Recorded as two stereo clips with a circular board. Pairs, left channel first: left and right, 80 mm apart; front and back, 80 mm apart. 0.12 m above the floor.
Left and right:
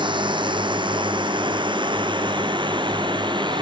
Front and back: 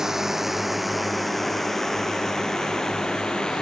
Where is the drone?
95° right; by 3.6 s 80° right.